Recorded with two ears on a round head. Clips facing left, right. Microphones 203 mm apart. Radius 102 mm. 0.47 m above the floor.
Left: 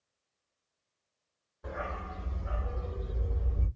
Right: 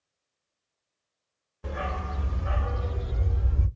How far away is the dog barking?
About 0.6 m.